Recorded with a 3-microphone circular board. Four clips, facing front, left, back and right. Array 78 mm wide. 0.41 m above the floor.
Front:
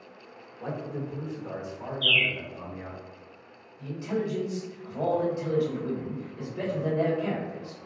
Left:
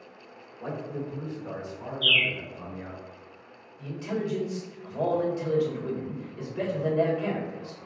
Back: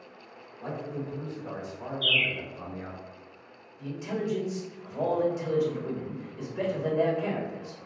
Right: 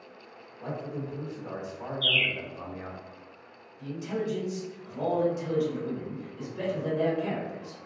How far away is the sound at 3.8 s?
About 1.8 m.